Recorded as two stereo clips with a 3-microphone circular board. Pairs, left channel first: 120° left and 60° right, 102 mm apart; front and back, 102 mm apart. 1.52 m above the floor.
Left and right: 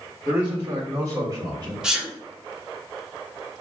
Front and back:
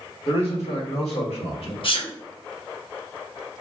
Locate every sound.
0.2 s a man speaking: 20° left, 1.5 m; by 1.7 s 10° right, 1.4 m
1.8 s a sneeze: 25° left, 0.8 m